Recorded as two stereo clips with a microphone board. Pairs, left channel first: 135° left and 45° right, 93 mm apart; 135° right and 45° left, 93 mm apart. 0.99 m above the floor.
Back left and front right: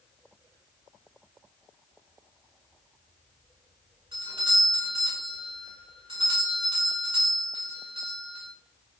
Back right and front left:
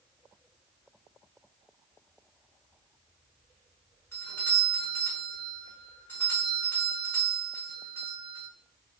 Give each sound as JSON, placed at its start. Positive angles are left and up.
{"t": 4.1, "sound": "a doorbell", "azimuth_deg": -65, "distance_m": 6.0}